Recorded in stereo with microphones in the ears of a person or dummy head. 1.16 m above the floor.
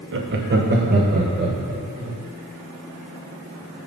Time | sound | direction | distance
0.1 | laughter | 55° right (ahead or behind) | 0.7 m